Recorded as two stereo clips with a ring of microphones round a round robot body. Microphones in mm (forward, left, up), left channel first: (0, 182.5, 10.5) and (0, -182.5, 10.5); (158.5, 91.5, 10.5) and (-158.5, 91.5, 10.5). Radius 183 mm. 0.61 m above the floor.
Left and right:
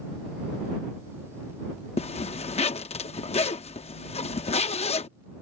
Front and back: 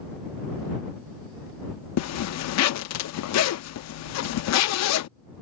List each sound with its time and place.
2.0 s a zipper: 20° left